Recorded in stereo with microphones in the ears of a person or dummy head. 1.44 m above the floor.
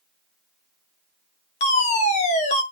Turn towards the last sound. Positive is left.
turn(degrees=40)  # may be behind; listen again after turning